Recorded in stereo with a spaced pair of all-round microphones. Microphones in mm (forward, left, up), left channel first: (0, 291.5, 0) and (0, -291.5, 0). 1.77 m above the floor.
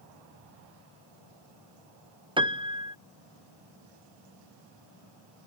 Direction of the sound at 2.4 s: 10° right (ahead or behind).